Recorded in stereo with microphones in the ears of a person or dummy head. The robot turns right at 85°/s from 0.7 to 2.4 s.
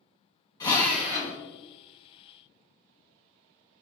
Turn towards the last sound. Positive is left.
turn(degrees=-60)